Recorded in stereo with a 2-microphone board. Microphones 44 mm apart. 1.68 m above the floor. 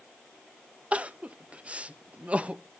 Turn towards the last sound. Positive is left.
turn(degrees=-30)  # may be behind; listen again after turning